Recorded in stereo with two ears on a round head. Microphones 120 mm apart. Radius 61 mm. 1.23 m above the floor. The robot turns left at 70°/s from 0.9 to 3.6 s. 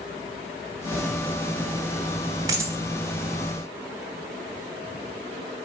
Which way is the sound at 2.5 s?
30° right (ahead or behind).